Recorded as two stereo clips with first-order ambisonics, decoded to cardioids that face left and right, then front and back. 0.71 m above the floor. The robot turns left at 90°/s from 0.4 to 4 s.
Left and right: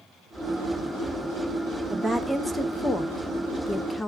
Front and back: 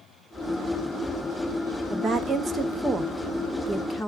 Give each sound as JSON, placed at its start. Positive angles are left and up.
{"t": 1.9, "sound": "a woman speaking", "azimuth_deg": -145, "distance_m": 0.6}